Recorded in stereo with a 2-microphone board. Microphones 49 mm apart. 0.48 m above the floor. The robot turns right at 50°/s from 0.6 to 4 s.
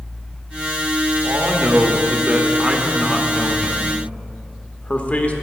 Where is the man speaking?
90° right, 1.0 m; by 5.3 s 45° left, 1.0 m.